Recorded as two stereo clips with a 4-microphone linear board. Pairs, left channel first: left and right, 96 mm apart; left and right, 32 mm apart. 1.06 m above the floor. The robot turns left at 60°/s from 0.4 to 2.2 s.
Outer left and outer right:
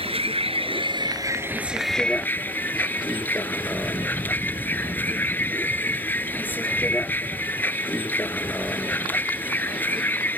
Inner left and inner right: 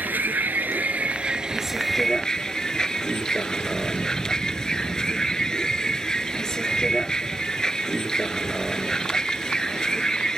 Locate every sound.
0.0 s a vehicle: 90° right; by 10.4 s 160° left